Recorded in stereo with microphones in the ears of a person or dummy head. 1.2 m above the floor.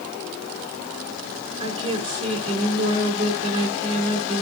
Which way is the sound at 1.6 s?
40° right (ahead or behind).